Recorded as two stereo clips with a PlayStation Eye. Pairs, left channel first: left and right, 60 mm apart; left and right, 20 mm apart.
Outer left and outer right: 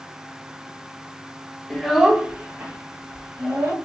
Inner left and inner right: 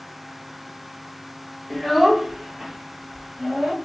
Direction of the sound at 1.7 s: 10° left (ahead or behind).